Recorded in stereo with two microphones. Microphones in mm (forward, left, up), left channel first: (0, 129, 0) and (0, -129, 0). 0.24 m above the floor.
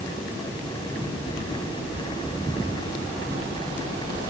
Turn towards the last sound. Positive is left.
No sound to turn to.